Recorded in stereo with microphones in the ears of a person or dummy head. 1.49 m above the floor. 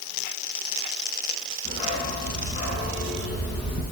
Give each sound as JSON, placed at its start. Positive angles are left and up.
{"t": 1.6, "sound": "a dog barking", "side_deg": 25, "distance_m": 6.5}